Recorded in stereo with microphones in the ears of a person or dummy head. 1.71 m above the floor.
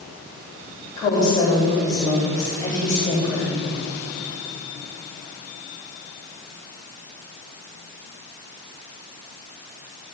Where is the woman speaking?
25° left (ahead or behind), 4.5 m.